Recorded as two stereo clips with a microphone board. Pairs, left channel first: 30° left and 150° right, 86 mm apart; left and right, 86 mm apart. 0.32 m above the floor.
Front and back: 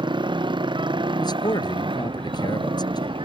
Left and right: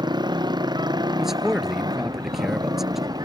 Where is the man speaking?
5° right.